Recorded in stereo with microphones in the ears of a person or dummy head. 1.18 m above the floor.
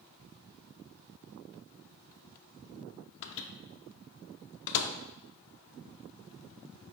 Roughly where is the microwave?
Left.